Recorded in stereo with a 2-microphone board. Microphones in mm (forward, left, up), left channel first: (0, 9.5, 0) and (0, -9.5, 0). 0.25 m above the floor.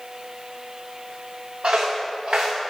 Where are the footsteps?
80° right, 1.3 m.